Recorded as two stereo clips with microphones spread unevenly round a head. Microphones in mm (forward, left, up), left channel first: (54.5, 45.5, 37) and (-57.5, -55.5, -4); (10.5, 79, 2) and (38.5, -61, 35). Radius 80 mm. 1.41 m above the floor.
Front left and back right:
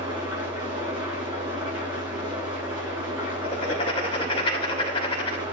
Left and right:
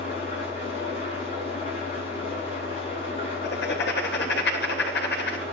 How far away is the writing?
About 3 m.